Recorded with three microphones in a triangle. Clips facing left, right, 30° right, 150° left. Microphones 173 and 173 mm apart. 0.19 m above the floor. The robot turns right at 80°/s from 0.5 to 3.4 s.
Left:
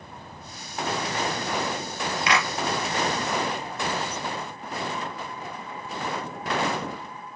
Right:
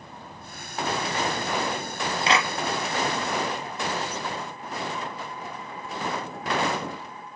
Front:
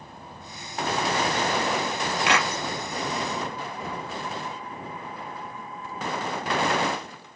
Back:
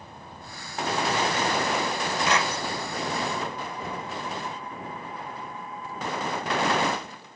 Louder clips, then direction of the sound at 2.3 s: Right 2 dB, front 1 dB; 30° right.